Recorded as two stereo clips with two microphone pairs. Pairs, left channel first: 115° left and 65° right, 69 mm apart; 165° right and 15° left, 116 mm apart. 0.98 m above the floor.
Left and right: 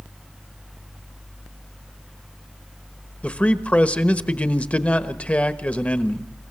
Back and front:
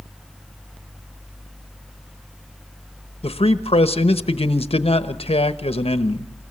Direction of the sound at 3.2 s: Straight behind.